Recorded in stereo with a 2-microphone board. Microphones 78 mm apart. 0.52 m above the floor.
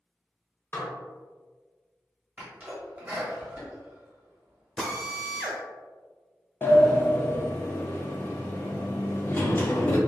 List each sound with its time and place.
0.7 s dishes clattering: 30° left (ahead or behind), 0.7 m
2.4 s a sneeze: 20° right (ahead or behind), 1.0 m
4.8 s a drill: 5° left (ahead or behind), 0.7 m
6.6 s a sliding door: 30° left (ahead or behind), 0.5 m